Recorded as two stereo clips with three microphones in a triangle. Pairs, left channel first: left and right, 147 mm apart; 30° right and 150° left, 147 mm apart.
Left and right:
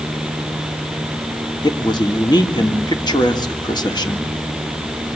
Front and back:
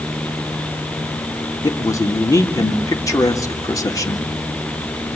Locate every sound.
1.6 s a man speaking: 35° left, 2 m